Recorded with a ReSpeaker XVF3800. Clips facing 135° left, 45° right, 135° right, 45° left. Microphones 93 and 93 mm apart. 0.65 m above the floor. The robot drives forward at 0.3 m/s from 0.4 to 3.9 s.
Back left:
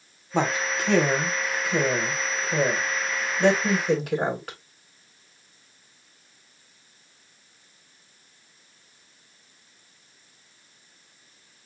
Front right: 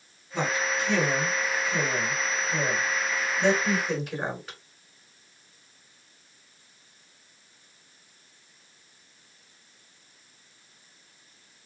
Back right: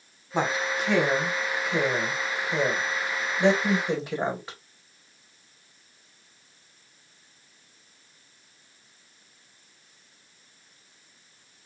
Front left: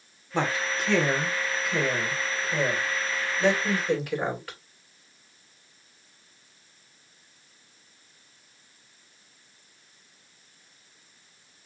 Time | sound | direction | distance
0.3 | a woman speaking | 145° left | 1.5 m